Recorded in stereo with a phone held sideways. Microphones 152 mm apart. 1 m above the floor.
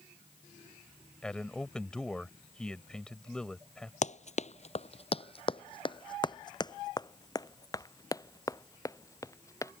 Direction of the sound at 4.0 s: 50° left (ahead or behind).